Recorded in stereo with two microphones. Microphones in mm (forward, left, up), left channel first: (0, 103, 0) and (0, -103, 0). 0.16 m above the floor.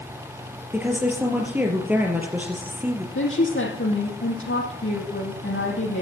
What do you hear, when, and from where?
0.7 s a woman speaking: 10° right (ahead or behind), 3 m
3.1 s a woman speaking: 80° left, 6 m